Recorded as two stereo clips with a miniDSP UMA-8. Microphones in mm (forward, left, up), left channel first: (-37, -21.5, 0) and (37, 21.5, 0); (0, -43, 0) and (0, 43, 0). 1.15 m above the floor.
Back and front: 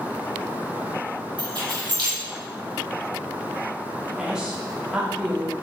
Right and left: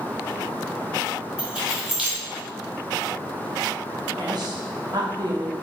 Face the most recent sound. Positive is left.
turn(degrees=110)